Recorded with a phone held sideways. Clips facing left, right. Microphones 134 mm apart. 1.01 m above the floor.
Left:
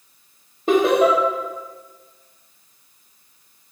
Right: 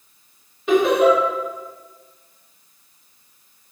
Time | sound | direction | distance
0.7 | laughter | 40° left (ahead or behind) | 1.1 m